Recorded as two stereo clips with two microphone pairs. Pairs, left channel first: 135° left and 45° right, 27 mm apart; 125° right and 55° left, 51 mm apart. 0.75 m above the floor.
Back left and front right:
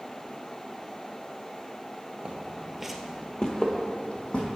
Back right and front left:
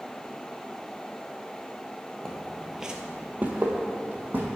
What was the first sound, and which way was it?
Footsteps, 45° right.